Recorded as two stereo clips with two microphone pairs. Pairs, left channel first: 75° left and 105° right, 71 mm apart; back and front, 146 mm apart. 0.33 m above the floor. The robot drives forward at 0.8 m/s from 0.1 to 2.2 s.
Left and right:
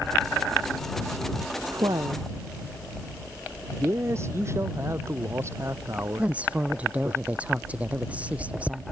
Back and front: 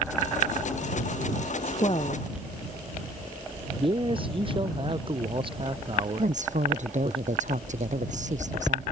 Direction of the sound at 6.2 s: 35° right.